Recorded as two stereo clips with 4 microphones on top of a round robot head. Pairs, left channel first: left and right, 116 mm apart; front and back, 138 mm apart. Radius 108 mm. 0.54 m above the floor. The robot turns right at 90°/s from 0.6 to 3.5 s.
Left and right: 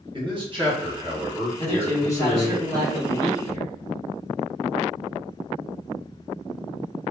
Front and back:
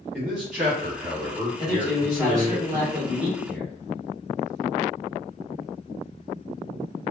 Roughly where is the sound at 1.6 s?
Left.